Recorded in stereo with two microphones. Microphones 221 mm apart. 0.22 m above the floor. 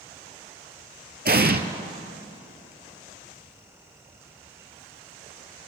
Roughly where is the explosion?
Right.